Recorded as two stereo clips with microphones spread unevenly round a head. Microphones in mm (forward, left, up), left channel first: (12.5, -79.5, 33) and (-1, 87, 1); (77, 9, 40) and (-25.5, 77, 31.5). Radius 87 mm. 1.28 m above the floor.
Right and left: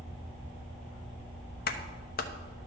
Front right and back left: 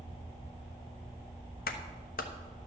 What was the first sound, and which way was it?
A clap, 50° right.